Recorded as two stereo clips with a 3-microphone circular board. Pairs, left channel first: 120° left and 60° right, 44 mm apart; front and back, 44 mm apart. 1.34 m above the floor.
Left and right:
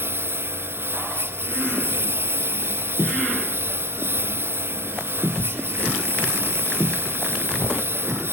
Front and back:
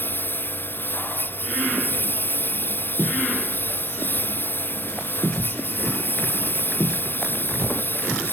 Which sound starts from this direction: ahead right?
A lawn mower, at 0.0 s.